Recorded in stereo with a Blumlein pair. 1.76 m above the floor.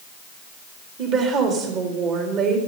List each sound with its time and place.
1.0 s a woman speaking: 30° right, 3.5 m